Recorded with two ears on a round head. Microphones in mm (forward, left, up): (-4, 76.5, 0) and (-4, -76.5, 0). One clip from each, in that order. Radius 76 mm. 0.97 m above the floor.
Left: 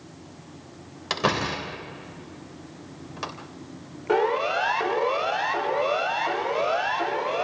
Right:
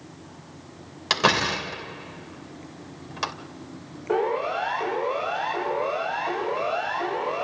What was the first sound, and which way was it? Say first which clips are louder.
A door slam: right 4 dB; 30° right (ahead or behind).